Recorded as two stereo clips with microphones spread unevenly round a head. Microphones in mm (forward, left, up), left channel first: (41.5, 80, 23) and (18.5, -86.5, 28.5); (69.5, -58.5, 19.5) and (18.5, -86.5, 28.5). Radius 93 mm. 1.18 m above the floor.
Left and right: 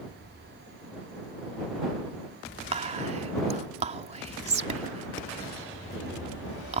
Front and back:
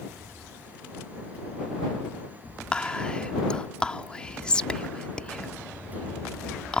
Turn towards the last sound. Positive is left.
turn(degrees=-45)